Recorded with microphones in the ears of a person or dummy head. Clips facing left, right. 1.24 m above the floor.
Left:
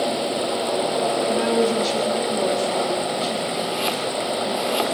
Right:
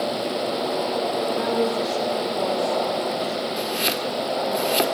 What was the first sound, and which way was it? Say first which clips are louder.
A woman speaking: left 4 dB; 45° left (ahead or behind).